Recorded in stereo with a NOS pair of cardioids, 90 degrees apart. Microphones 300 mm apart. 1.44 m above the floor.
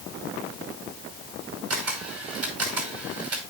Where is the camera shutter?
55° right, 5.5 m.